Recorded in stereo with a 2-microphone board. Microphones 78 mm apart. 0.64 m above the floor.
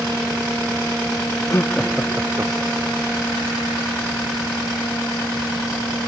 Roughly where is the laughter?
Left.